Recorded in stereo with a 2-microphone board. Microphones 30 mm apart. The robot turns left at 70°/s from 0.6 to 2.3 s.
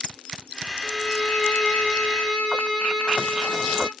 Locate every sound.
0.8 s a violin: 150° left, 1.0 m; by 3.9 s 45° left, 1.0 m